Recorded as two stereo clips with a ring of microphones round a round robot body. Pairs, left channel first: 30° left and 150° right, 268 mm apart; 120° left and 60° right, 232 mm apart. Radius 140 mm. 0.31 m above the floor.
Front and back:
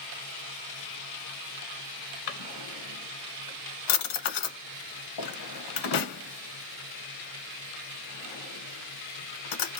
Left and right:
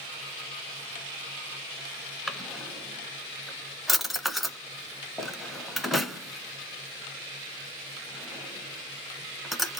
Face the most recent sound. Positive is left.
turn(degrees=30)